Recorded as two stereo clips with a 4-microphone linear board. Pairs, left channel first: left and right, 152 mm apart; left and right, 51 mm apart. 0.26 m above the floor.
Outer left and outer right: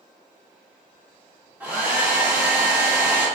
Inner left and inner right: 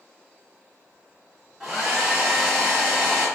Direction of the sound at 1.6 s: 10° right (ahead or behind).